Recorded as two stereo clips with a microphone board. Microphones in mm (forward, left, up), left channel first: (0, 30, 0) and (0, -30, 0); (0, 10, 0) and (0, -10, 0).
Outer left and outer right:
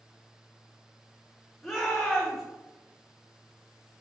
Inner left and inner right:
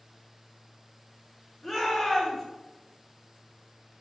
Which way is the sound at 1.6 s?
Centre (ahead or behind).